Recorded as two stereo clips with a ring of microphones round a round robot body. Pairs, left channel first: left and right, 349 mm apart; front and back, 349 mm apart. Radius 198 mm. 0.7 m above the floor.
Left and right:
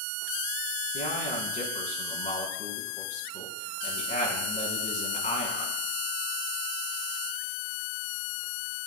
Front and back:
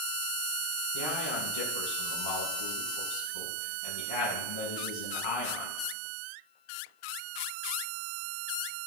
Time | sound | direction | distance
0.9 | a man speaking | 20° left | 6.5 m